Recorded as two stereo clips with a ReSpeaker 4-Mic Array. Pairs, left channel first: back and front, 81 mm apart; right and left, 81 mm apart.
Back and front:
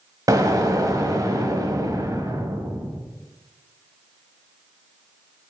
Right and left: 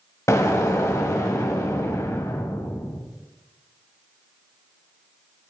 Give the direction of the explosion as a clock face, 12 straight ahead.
1 o'clock.